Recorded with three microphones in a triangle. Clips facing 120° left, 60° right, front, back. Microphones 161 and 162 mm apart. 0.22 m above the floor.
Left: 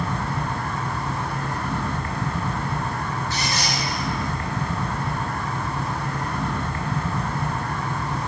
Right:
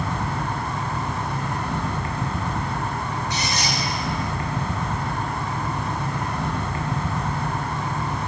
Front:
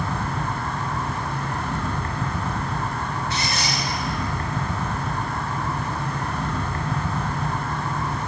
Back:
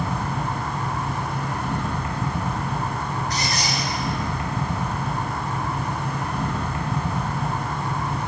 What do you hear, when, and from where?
0.0 s an insect: 115° right, 1.5 m
3.3 s a squeak: 130° right, 2 m